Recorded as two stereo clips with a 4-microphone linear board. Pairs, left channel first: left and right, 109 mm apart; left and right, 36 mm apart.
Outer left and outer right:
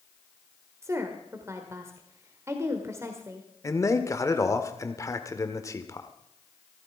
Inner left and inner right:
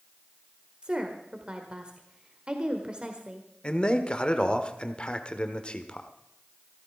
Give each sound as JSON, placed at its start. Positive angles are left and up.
{"t": 0.8, "sound": "a woman speaking", "side_deg": -25, "distance_m": 1.6}
{"t": 3.6, "sound": "a man speaking", "side_deg": 30, "distance_m": 1.3}